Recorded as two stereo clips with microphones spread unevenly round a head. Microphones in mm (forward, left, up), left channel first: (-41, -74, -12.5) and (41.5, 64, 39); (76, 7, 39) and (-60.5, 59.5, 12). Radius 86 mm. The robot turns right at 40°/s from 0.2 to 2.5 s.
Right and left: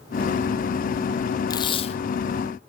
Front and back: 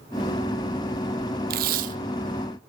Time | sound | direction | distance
1.5 | tape being pulled | 175° left | 0.6 m